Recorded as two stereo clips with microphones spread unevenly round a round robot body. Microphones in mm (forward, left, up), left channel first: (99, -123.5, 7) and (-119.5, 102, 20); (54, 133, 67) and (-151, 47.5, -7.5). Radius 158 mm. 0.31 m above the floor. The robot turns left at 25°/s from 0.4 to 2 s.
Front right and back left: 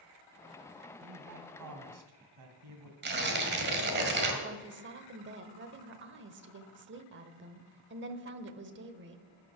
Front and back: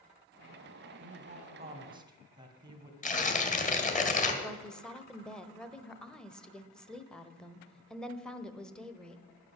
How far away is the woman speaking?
About 1.0 m.